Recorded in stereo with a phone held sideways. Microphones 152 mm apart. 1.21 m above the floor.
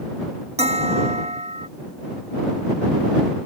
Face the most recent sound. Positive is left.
turn(degrees=-45)  # may be behind; listen again after turning